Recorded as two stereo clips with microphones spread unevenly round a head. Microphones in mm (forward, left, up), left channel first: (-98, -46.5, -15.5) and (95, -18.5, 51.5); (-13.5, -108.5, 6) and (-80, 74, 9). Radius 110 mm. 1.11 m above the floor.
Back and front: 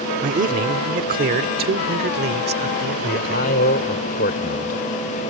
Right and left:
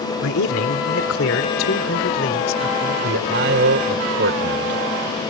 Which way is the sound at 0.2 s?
45° right.